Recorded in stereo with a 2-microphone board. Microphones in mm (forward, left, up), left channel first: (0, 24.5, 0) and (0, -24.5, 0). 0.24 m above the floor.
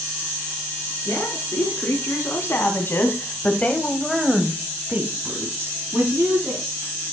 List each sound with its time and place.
1.1 s a woman speaking: 65° left (ahead or behind), 4 m; by 6.7 s 60° right (ahead or behind), 3 m